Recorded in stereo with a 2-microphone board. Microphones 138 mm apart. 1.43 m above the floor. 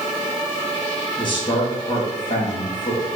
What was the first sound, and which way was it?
A man speaking, 35° left (ahead or behind).